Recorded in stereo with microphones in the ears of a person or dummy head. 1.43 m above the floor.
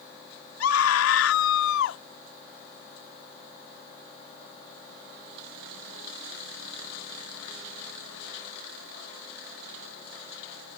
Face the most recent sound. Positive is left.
turn(degrees=75)  # may be behind; listen again after turning